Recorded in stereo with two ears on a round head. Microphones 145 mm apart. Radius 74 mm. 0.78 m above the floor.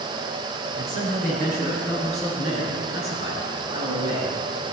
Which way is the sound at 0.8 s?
45° right (ahead or behind).